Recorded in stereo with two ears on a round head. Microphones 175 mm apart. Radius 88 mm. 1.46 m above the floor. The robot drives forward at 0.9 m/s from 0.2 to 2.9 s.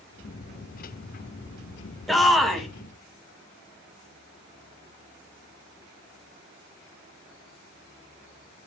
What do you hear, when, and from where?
2.1 s a shout: centre (ahead or behind), 1.2 m